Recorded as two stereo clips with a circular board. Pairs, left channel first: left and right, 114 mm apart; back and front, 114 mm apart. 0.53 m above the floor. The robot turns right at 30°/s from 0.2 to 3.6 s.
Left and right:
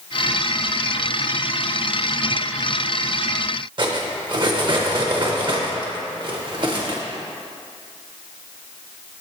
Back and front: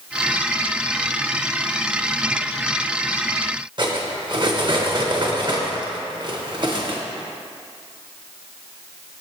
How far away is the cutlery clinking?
About 0.7 m.